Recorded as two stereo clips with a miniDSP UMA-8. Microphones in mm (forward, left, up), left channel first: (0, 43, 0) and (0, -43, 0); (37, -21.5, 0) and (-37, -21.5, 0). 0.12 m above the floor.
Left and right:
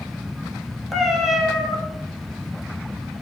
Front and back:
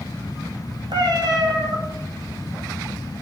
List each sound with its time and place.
0.9 s a cat meowing: straight behind, 0.8 m